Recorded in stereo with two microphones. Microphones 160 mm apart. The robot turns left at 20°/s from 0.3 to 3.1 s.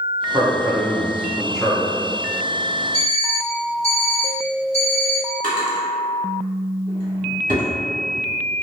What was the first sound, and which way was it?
A man speaking, 150° right.